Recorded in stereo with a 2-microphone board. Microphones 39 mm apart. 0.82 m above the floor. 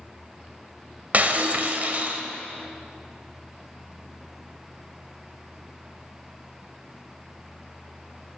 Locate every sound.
1.1 s breaking glass: 45° right (ahead or behind), 1.0 m